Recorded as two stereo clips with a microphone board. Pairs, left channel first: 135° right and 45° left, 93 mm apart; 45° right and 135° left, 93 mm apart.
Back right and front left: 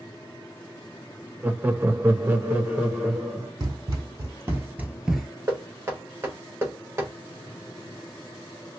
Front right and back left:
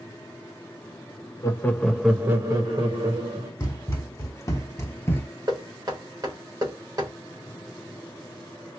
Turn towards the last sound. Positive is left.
turn(degrees=100)